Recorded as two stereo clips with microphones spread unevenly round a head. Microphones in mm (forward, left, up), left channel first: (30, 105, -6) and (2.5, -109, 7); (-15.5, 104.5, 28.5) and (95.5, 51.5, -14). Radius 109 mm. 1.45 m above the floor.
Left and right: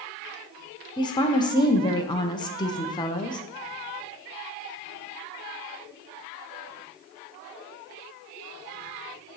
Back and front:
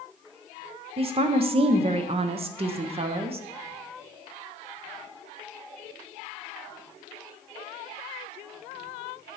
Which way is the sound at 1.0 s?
10° left.